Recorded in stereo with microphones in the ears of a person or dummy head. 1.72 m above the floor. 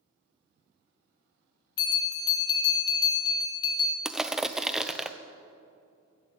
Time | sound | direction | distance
1.8 | a bell | 25° left (ahead or behind) | 1.1 m
4.0 | crushing | centre (ahead or behind) | 0.7 m